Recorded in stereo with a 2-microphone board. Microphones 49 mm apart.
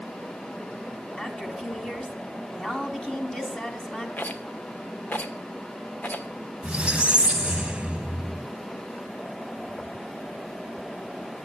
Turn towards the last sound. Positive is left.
turn(degrees=-25)  # may be behind; listen again after turning